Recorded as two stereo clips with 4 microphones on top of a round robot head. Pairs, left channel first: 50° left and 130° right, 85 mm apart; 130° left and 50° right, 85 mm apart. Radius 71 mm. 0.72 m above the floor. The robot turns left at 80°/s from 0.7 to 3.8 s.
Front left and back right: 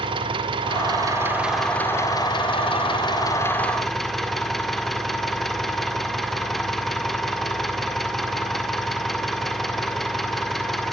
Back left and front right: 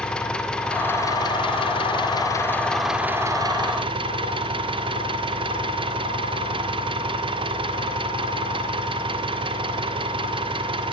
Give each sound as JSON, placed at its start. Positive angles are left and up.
{"t": 0.0, "sound": "an engine running", "azimuth_deg": -150, "distance_m": 2.0}